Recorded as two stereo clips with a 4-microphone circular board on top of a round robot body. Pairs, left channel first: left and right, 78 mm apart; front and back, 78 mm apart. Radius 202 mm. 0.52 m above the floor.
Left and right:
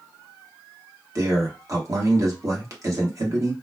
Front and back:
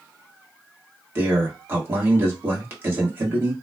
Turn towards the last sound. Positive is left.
turn(degrees=-125)